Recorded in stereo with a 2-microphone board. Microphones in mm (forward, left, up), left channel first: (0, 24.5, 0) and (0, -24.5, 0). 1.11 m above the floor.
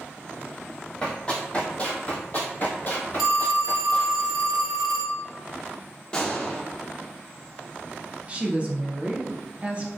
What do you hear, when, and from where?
1.0 s running footsteps: 20° left (ahead or behind), 1.6 m; by 4.2 s 40° left (ahead or behind), 1.6 m
3.2 s a phone ringing: 10° right (ahead or behind), 0.7 m
6.1 s a gunshot: 20° left (ahead or behind), 0.7 m
8.3 s a woman speaking: 30° right (ahead or behind), 0.6 m